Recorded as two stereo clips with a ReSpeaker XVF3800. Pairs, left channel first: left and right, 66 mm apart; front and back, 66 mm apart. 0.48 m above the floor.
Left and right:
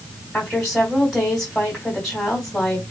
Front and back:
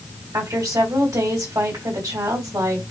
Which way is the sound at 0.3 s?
170° left.